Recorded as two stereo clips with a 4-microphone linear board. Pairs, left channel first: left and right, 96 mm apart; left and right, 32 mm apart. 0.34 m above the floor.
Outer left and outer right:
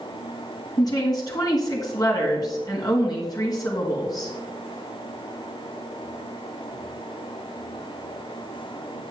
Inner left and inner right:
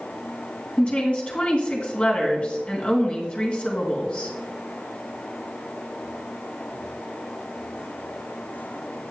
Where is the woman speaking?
40° left (ahead or behind), 3 m.